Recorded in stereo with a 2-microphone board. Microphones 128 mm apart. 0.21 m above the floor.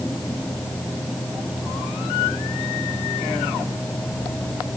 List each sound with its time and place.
Only background noise.